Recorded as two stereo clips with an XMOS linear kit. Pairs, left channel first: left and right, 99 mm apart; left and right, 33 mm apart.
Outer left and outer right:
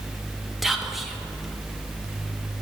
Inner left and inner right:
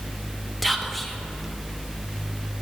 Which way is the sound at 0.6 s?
Centre (ahead or behind).